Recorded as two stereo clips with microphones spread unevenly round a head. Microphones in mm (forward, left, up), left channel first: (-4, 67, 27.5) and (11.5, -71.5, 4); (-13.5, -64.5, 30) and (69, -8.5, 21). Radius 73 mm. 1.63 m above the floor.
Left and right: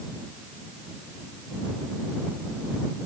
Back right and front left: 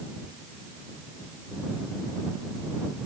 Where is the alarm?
I don't hear an alarm.